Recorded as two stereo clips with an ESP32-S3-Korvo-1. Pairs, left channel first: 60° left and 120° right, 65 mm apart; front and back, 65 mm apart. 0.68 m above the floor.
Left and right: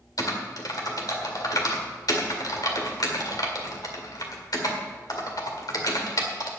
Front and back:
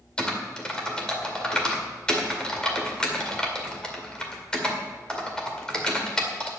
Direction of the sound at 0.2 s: 80° left.